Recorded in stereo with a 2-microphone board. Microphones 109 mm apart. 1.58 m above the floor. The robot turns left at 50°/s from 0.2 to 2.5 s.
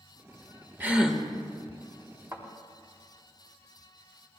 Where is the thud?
30° right (ahead or behind), 2.5 m; by 2.5 s 20° right (ahead or behind), 2.5 m.